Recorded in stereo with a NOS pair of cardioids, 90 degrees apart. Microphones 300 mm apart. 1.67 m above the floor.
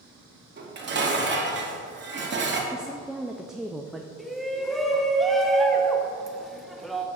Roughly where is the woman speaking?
Ahead.